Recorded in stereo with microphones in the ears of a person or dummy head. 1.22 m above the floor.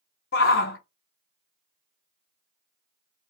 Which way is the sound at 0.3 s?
45° left (ahead or behind).